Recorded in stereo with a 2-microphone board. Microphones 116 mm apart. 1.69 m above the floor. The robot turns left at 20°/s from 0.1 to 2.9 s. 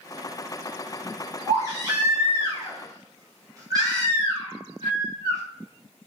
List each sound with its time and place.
1.5 s a baby crying: 30° right (ahead or behind), 1.0 m